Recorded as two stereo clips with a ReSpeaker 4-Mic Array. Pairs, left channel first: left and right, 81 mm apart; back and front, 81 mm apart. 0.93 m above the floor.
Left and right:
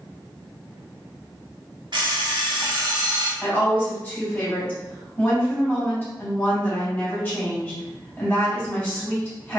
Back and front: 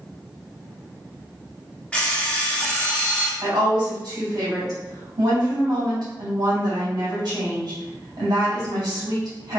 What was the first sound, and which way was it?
An alarm clock, 105° right.